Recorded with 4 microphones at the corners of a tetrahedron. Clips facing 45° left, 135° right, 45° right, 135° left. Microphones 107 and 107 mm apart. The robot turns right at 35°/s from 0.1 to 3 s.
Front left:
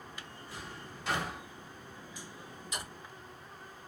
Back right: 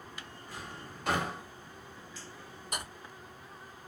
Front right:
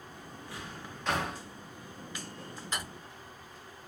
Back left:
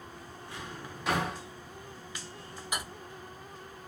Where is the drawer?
165° right, 1.4 m; by 1.4 s 135° right, 1.4 m.